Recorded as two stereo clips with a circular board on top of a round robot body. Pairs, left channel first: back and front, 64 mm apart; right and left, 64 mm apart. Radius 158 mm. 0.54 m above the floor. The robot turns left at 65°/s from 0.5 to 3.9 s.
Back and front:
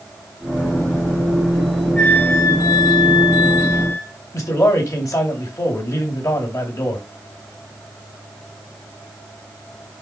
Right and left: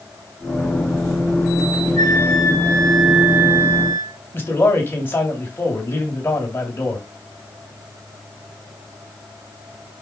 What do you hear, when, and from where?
2.0 s a flute: 105° right, 2.5 m; by 4.1 s 130° left, 2.5 m
4.3 s a man speaking: 145° right, 3.5 m